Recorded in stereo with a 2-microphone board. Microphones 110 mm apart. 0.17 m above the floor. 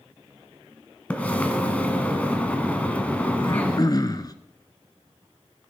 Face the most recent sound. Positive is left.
turn(degrees=35)  # may be behind; listen again after turning